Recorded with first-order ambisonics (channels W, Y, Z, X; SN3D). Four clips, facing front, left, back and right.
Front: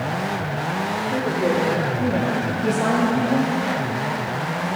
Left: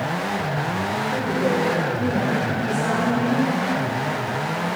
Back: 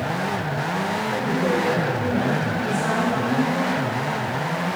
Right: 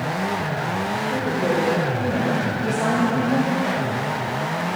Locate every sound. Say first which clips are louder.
1.1 s a woman speaking: even, front 2 dB; 10° right, 4 m; by 3.5 s 50° right, 1.4 m